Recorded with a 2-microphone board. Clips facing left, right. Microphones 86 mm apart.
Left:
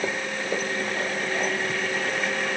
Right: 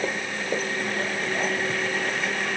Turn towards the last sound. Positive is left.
No sound to turn to.